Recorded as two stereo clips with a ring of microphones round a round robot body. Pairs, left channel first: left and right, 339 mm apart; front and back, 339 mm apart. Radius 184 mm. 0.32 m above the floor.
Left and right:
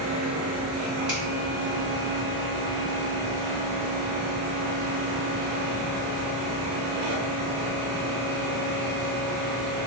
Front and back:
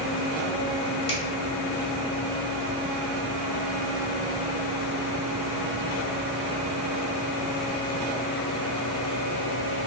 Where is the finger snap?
5° right, 1.1 m.